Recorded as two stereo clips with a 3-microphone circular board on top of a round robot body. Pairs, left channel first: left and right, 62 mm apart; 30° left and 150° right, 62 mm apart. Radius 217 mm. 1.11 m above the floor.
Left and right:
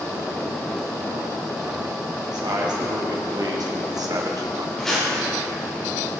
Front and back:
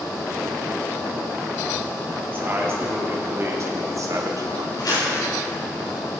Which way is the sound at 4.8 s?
5° left.